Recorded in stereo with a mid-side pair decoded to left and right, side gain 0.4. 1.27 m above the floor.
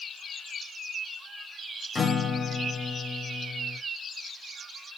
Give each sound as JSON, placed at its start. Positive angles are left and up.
{"t": 1.9, "sound": "a guitar", "azimuth_deg": 35, "distance_m": 0.5}